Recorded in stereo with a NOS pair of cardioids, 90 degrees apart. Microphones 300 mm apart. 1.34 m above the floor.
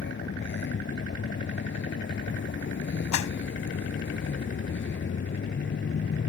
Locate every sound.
0.0 s a vehicle: 40° left
3.1 s a clap: 70° left